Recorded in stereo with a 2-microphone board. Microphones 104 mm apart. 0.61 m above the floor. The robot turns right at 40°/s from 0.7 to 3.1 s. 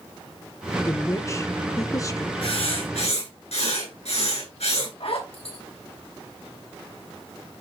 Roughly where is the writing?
Left.